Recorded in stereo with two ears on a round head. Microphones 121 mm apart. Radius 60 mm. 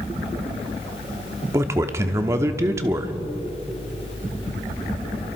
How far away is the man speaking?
About 1.1 m.